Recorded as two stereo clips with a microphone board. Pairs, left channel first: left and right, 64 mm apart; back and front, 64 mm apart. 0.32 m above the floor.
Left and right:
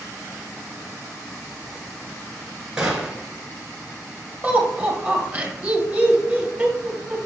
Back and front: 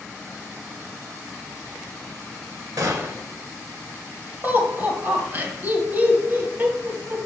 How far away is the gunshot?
About 1.7 m.